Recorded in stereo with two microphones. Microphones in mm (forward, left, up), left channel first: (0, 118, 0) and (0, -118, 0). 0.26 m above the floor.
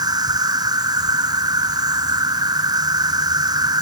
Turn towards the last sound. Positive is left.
turn(degrees=-15)  # may be behind; listen again after turning